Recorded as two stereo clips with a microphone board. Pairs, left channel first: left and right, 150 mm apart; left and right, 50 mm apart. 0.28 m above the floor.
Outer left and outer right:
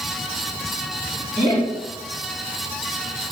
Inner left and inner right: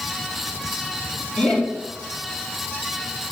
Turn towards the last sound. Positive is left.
turn(degrees=20)  # may be behind; listen again after turning